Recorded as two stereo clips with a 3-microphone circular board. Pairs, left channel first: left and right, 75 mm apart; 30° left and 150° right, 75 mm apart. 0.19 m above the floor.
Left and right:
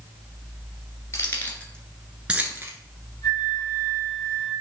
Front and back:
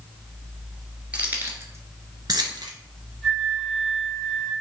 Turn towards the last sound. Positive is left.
turn(degrees=120)